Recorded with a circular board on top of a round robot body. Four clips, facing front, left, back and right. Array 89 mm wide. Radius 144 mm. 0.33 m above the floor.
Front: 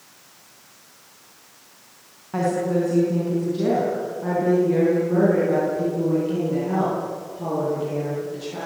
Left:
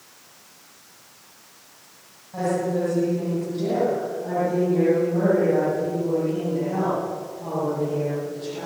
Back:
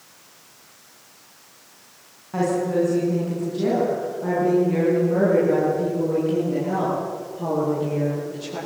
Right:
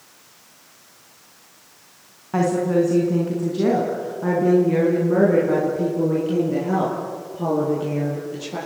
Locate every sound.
2.3 s a woman speaking: 80° right, 5.5 m; by 8.6 s 90° right, 12 m